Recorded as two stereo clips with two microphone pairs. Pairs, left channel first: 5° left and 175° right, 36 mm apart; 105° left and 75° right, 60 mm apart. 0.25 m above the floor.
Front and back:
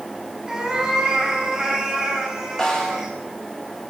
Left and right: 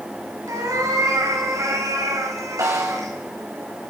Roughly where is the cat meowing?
Right.